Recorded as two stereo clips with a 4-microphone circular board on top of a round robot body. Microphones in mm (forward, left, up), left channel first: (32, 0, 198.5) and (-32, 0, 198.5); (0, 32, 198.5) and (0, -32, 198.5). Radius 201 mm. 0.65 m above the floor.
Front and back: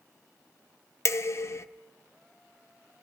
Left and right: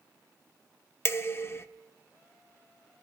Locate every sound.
1.1 s dishes clattering: 40° left, 0.7 m